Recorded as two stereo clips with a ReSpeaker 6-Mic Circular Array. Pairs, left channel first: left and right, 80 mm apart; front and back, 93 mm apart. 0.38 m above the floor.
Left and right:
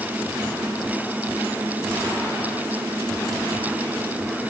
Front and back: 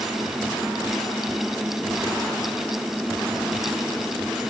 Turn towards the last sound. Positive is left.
No sound to turn to.